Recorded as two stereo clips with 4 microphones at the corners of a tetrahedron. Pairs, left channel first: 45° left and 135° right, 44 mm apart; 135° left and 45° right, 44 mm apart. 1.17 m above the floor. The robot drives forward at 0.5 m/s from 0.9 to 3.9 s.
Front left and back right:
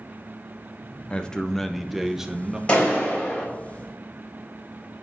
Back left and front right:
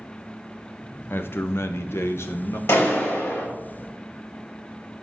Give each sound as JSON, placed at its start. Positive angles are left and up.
{"t": 1.1, "sound": "a man speaking", "azimuth_deg": 105, "distance_m": 0.6}
{"t": 2.7, "sound": "a clap", "azimuth_deg": 105, "distance_m": 4.0}